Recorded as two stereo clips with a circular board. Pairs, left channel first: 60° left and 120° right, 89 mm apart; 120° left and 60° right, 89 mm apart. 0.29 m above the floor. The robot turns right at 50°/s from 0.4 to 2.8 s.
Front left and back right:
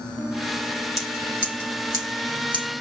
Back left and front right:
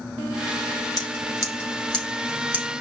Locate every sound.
1.0 s scissors: 150° left, 4 m; by 2.7 s 125° right, 4 m